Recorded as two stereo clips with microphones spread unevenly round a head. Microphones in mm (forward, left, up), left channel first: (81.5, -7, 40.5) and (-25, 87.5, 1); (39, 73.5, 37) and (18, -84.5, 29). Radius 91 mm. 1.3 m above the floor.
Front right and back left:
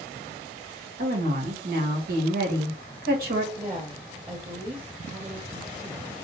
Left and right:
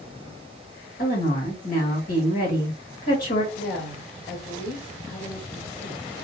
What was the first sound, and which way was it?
A woman speaking, 125° left.